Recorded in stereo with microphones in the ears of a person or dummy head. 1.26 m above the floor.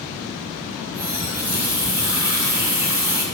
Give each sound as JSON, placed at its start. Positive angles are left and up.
{"t": 0.8, "sound": "a running tap", "side_deg": -15, "distance_m": 2.5}